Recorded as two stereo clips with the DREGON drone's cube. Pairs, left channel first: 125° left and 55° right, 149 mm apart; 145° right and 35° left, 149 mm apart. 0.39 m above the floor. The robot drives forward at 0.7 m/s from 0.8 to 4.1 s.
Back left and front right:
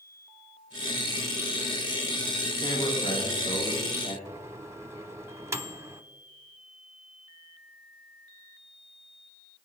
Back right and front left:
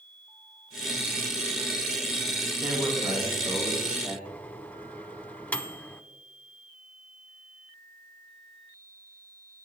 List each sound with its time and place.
2.6 s a man speaking: 70° left, 3 m; by 4.2 s 95° left, 3 m
4.2 s a microwave: 85° right, 0.8 m